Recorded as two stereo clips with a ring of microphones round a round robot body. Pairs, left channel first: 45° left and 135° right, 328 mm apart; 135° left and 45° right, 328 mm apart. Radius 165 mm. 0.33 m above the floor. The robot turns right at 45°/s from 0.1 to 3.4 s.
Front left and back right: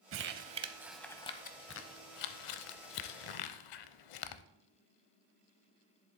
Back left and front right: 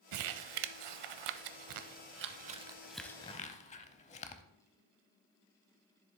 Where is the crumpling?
85° right, 0.5 m; by 4.4 s 65° left, 0.5 m.